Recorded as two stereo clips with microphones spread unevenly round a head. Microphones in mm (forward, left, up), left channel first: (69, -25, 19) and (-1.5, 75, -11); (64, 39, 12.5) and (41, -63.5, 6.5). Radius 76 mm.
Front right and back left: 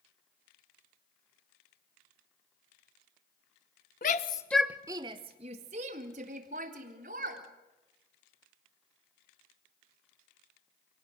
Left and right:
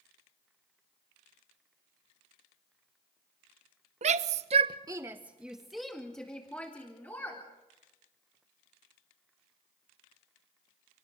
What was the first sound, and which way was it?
A shout, 95° right.